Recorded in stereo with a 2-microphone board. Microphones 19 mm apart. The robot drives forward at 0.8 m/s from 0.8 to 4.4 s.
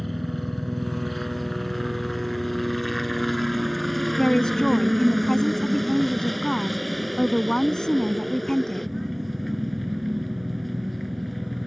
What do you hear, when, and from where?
0.0 s a helicopter: 5° left (ahead or behind)
4.2 s a woman speaking: 45° left (ahead or behind); by 8.9 s 40° left (ahead or behind)